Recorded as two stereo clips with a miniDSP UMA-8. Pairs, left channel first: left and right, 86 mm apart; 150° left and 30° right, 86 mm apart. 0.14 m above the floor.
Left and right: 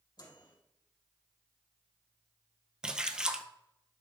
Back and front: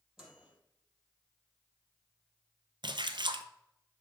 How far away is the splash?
About 0.7 m.